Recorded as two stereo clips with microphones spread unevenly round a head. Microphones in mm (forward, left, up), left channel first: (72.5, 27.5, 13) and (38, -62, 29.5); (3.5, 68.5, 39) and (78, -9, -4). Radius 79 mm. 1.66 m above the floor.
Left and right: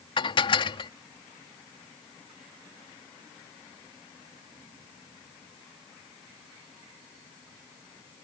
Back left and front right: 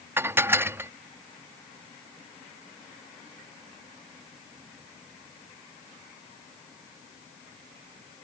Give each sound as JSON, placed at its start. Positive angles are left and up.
{"t": 0.2, "sound": "dishes clattering", "azimuth_deg": 35}